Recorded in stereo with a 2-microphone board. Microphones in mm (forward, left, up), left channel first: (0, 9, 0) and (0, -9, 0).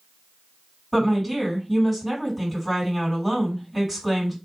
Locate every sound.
0.9 s a woman speaking: 10° right (ahead or behind), 2.5 m